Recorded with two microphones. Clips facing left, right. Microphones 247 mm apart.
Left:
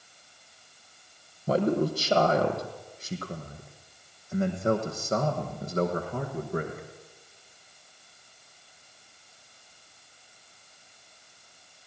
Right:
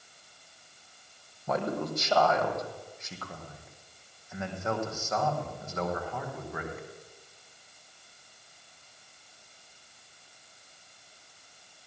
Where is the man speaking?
30° left (ahead or behind), 3.5 m; by 6.9 s 40° left (ahead or behind), 6.5 m.